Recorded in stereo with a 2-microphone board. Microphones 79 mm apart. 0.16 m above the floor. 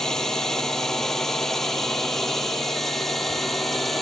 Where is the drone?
5° left (ahead or behind).